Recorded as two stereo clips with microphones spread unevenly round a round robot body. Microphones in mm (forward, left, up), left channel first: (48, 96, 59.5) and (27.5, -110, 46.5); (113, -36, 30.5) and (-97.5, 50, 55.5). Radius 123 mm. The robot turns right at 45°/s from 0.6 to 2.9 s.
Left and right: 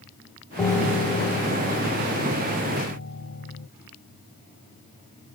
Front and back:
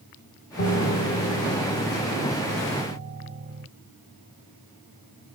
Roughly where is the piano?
Ahead.